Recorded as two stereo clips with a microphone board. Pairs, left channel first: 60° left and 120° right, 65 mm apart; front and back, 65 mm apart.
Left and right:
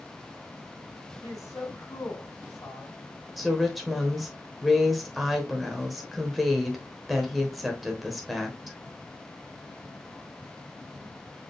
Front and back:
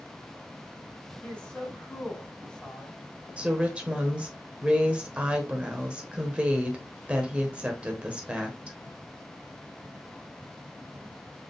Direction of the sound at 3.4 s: 150° left.